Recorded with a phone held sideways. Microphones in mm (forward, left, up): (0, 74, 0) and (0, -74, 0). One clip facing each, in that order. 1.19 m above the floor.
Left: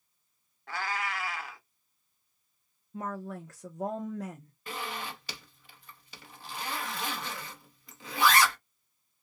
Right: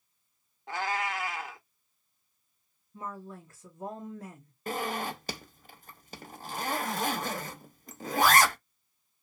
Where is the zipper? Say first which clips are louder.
Right 6 dB; 45° right (ahead or behind), 0.6 m.